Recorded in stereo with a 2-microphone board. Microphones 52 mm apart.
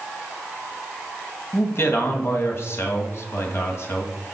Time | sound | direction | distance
1.5 | a man speaking | 50° left (ahead or behind) | 2 m